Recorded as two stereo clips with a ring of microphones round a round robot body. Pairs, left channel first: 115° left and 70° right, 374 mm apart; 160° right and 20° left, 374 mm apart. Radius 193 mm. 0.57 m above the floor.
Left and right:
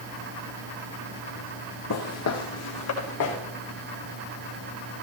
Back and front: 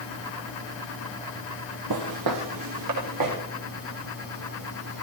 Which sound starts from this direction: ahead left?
Footsteps, at 1.9 s.